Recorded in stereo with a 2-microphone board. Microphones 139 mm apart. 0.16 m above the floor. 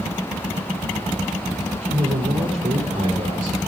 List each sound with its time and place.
1.8 s a man speaking: 45° right (ahead or behind), 6 m